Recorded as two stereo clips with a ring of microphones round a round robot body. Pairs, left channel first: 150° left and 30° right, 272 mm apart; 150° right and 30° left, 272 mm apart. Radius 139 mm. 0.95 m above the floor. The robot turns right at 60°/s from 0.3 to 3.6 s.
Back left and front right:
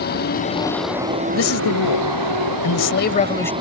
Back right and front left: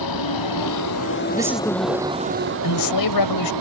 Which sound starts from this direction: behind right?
A vehicle, at 0.0 s.